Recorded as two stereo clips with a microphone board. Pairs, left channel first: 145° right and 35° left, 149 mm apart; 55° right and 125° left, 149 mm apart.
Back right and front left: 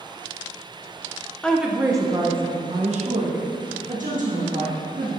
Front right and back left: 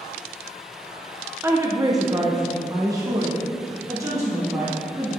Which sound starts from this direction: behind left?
A woman speaking, at 1.4 s.